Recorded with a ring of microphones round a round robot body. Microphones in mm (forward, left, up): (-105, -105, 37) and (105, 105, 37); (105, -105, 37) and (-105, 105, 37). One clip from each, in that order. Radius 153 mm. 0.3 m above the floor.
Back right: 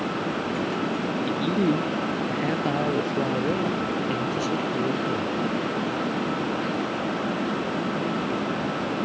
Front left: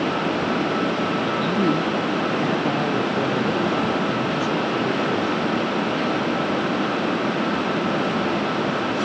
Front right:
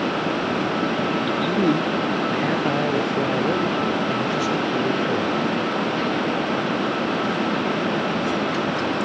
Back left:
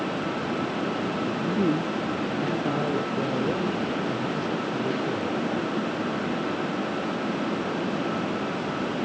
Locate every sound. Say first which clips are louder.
1.3 s a man speaking: front left 1 dB, front right 5 dB; 50° right; by 5.5 s 65° right